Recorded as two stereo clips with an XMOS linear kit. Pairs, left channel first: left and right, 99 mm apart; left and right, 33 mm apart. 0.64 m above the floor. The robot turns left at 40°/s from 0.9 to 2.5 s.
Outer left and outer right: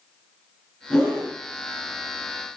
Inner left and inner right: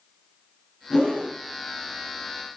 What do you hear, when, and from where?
0.9 s a whoosh: 15° left (ahead or behind), 1.8 m; by 1.3 s 5° right (ahead or behind), 1.8 m